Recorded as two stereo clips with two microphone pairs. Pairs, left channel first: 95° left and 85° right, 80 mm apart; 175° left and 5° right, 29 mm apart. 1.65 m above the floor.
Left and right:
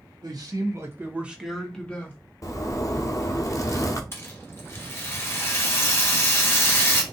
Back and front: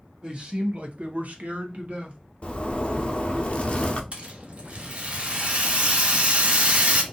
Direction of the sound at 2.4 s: 130° left.